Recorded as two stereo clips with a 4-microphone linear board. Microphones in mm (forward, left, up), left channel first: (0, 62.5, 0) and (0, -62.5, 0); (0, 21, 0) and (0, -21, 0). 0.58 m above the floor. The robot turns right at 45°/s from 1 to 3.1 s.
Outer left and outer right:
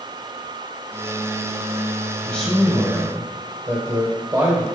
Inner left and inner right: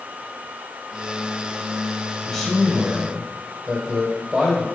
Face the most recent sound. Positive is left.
turn(degrees=-150)